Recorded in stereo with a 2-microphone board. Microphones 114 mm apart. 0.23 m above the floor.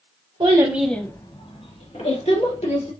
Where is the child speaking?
40° right (ahead or behind), 0.9 m; by 2.9 s 75° left (ahead or behind), 2.5 m.